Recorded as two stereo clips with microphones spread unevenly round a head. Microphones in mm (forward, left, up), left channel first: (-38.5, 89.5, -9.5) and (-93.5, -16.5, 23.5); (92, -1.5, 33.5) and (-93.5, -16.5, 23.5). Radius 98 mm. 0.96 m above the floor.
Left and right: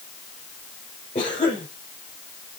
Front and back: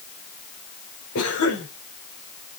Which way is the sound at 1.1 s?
5° left.